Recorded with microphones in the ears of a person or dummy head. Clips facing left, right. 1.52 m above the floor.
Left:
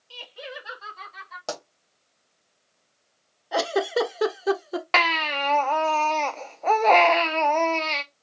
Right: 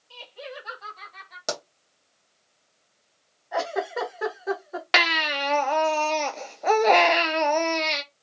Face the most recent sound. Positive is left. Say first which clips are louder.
# right 1 dB
turn(degrees=-20)  # may be behind; listen again after turning